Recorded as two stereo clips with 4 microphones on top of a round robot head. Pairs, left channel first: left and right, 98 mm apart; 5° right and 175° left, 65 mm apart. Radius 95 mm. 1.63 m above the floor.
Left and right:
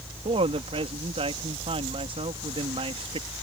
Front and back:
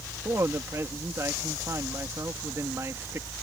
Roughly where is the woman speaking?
Behind right.